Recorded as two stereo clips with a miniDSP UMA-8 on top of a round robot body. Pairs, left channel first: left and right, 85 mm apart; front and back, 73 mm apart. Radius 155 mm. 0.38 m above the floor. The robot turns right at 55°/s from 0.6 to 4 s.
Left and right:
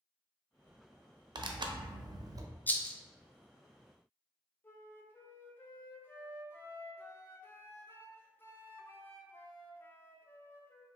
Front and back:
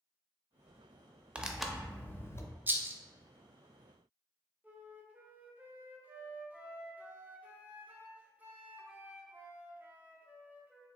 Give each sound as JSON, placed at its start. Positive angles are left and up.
{"t": 1.4, "sound": "tearing paper", "azimuth_deg": -110, "distance_m": 0.5}
{"t": 2.7, "sound": "a rattle", "azimuth_deg": 140, "distance_m": 0.5}
{"t": 4.6, "sound": "a flute", "azimuth_deg": 130, "distance_m": 0.7}